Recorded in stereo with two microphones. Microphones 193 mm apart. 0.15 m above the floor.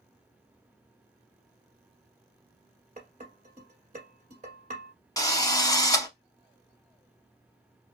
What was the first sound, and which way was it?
Dishes clattering, 45° right (ahead or behind).